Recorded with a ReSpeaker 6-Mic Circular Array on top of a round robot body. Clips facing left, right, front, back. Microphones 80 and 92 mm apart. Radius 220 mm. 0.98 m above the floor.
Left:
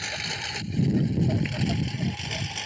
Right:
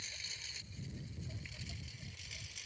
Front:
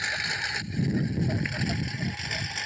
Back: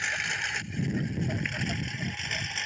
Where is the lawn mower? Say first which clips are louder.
Left 19 dB, front 1 dB; 80° left; by 2.7 s 85° left.